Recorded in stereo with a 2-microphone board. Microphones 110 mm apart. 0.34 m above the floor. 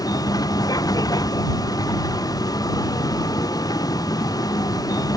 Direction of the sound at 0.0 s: 35° left (ahead or behind).